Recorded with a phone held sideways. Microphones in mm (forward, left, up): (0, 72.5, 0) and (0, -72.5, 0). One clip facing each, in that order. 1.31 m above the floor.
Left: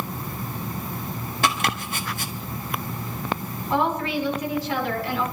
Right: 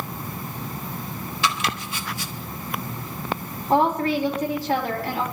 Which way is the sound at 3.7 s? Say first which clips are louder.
Right 4 dB; 50° right (ahead or behind).